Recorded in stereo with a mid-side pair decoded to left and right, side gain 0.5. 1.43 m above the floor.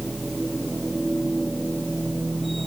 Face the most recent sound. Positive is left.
turn(degrees=-15)